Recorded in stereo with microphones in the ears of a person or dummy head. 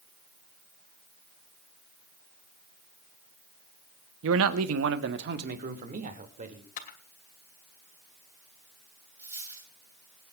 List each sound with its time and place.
4.2 s a man speaking: 75° right (ahead or behind), 1.0 m; by 6.7 s 35° right (ahead or behind), 3 m
6.8 s a camera shutter: 45° left (ahead or behind), 2.5 m
9.2 s a dropped coin: 10° right (ahead or behind), 8 m